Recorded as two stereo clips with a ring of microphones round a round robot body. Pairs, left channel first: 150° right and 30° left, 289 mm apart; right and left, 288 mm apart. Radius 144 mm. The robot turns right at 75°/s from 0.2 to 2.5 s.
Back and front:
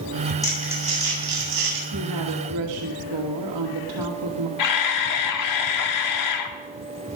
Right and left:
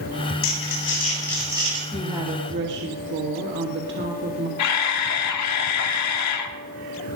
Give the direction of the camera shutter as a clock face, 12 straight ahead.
4 o'clock.